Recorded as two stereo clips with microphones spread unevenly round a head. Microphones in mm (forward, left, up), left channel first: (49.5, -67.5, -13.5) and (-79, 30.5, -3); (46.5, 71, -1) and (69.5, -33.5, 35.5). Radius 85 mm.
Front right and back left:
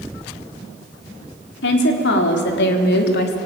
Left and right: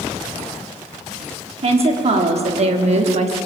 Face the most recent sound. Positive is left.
turn(degrees=-60)